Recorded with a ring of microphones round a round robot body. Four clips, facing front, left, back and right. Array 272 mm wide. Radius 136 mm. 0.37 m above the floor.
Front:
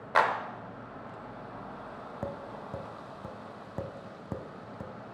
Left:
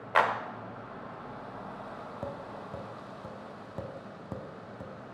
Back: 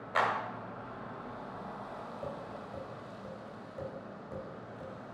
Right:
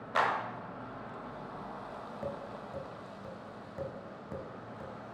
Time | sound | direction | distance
0.1 | a clap | 45° left | 0.8 m
2.2 | tapping | 20° left | 0.9 m